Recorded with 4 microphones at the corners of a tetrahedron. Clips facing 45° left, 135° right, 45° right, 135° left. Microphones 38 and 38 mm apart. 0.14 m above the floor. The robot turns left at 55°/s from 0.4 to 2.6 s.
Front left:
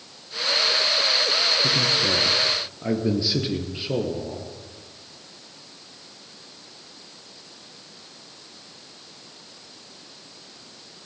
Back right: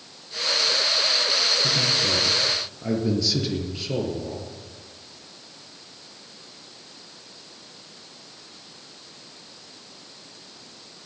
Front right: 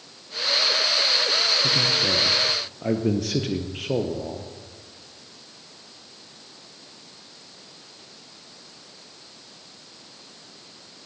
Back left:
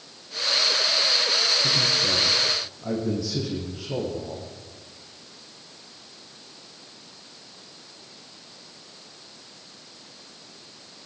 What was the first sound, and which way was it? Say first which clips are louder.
A man speaking: front left 1 dB, front right 1 dB; 25° left.